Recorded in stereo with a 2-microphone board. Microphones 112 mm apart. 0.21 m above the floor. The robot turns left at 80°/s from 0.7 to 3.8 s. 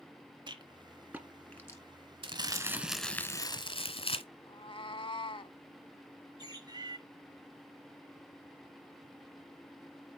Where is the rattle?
45° right (ahead or behind), 1.6 m; by 1.8 s 25° left (ahead or behind), 1.6 m.